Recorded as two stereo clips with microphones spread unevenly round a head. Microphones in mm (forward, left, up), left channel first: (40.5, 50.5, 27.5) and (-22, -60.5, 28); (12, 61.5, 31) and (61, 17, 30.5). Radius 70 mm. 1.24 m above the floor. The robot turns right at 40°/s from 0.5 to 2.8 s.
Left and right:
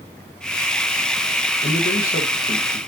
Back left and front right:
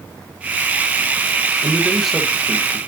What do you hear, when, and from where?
1.6 s a man speaking: 30° left, 1.1 m; by 2.8 s 75° left, 1.1 m